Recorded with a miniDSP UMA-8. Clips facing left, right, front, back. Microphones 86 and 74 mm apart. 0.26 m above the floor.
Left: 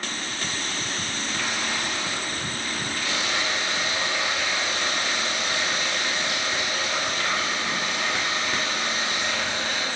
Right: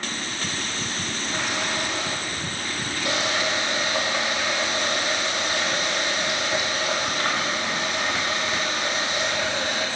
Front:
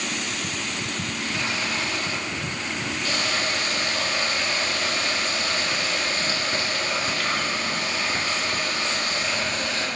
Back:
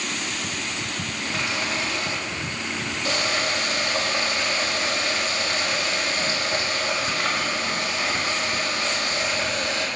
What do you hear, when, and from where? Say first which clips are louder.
1.2 s a running tap: right 2 dB, back 2 dB; 120° right, 5.5 m